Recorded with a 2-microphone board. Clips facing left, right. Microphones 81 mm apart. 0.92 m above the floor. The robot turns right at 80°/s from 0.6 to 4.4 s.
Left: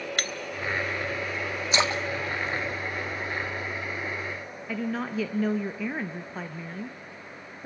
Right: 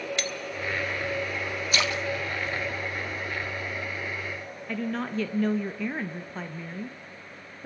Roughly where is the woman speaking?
Centre.